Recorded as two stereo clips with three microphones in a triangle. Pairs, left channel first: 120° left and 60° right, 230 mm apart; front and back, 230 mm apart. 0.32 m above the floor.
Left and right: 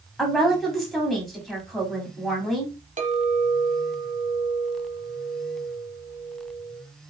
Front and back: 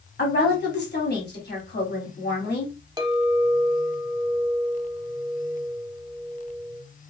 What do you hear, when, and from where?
0.2 s a woman speaking: 30° left, 1.9 m
3.0 s a clink: 110° right, 0.9 m